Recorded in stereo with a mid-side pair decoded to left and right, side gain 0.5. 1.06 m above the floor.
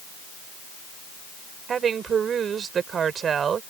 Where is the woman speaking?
45° right.